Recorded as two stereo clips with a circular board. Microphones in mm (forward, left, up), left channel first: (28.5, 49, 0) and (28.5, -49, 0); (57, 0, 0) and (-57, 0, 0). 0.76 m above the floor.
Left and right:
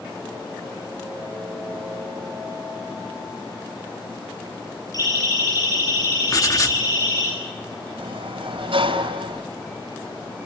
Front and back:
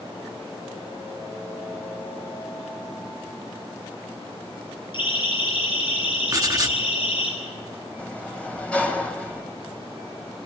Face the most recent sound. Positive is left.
turn(degrees=-80)